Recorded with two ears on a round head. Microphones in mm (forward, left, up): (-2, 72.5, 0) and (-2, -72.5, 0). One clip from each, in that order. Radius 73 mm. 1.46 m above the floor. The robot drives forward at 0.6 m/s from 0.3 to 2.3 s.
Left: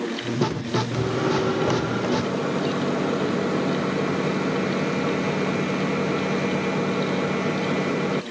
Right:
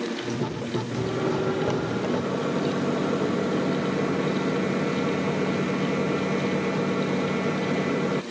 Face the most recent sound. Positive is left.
turn(degrees=15)  # may be behind; listen again after turning